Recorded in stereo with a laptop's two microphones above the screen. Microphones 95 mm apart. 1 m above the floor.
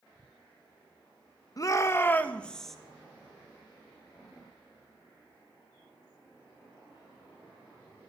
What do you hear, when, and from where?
1.6 s a shout: 35° left (ahead or behind), 0.9 m; by 2.8 s centre (ahead or behind), 1.0 m